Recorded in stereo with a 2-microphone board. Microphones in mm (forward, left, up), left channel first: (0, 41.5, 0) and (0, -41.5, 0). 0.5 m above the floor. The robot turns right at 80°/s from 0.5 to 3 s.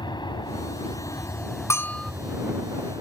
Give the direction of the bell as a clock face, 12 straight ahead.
7 o'clock.